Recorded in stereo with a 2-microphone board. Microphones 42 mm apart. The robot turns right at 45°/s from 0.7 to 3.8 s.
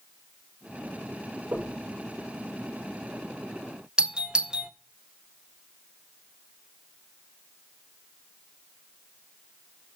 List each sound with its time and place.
1.5 s knocking: 80° right, 5.5 m; by 1.8 s 85° right, 5.5 m
4.0 s a doorbell: 20° right (ahead or behind), 0.8 m